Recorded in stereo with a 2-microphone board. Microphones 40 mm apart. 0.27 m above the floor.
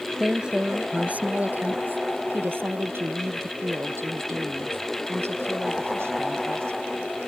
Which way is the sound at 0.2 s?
15° right (ahead or behind).